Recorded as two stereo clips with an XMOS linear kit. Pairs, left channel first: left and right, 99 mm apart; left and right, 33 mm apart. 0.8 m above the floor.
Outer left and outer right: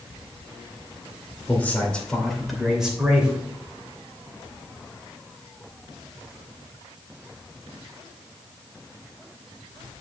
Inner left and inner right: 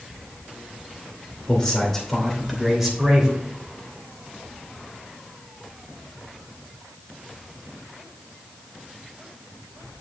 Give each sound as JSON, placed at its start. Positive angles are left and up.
{"t": 1.5, "sound": "a man speaking", "side_deg": 20, "distance_m": 2.5}